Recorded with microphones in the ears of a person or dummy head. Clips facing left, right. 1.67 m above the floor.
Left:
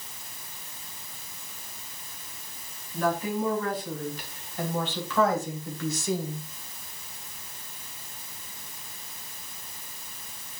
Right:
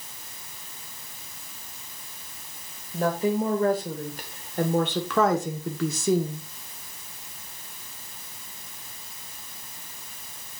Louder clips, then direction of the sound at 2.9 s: Right 3 dB; 30° right (ahead or behind).